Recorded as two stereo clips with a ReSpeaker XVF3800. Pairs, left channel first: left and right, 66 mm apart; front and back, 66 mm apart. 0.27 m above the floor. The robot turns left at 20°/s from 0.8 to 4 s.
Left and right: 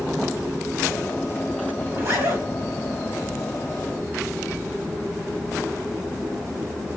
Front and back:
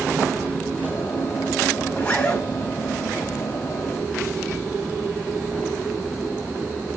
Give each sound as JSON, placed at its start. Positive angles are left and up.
{"t": 1.9, "sound": "a zipper", "azimuth_deg": -55, "distance_m": 1.8}